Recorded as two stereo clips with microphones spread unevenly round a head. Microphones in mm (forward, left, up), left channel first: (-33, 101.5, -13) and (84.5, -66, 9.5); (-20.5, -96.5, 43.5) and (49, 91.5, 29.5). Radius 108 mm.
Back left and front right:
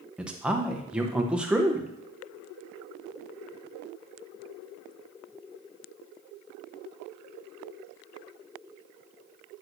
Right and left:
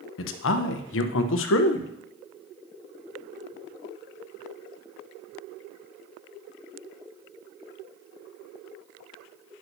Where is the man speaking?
140° right, 0.7 m.